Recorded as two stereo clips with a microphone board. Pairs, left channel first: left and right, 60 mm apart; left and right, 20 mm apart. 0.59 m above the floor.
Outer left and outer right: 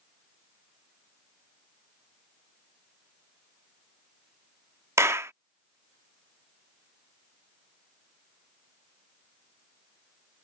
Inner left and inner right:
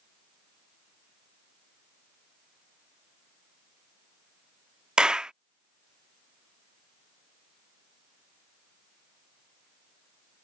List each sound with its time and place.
5.0 s a clap: 45° right (ahead or behind)